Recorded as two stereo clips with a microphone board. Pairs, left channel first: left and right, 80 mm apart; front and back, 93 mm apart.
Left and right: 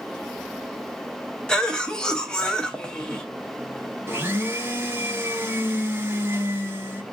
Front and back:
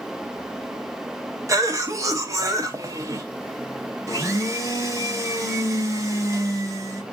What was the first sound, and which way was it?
A cough, 165° left.